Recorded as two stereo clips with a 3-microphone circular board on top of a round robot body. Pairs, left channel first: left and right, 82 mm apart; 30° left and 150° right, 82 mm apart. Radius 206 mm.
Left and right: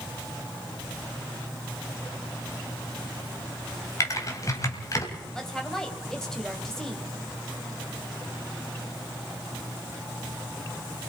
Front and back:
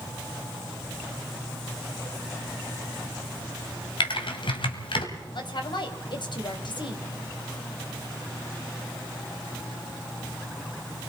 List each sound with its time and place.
4.0 s typing on a keyboard: 40° left, 2.5 m
5.3 s a woman speaking: 5° left, 3 m